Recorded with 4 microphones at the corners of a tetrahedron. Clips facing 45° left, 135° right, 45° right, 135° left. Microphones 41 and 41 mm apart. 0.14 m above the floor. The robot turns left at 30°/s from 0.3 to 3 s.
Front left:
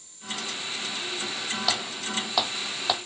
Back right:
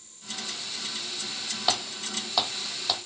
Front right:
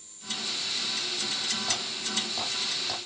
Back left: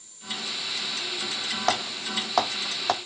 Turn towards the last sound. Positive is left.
turn(degrees=110)